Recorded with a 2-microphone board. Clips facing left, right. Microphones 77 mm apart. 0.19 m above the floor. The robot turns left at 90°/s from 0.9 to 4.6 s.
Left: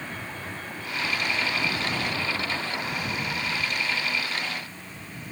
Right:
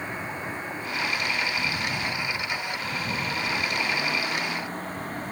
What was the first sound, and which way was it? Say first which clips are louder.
A vehicle: right 3 dB; 160° right.